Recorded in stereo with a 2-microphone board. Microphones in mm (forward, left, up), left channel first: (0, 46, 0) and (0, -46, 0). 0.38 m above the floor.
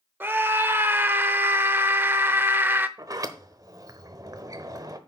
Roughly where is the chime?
I don't hear a chime.